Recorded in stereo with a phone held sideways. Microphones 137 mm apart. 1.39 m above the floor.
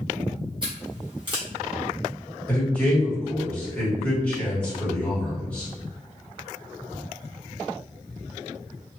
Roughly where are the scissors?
Right.